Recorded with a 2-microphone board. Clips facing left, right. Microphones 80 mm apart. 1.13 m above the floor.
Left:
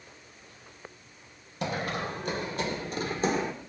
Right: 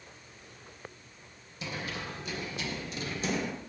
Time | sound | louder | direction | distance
1.6 | running footsteps | left 7 dB | 55° left (ahead or behind) | 2.5 m